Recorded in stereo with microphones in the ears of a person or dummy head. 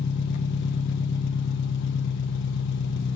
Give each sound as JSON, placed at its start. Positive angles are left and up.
{"t": 0.0, "sound": "an engine running", "side_deg": 65, "distance_m": 0.9}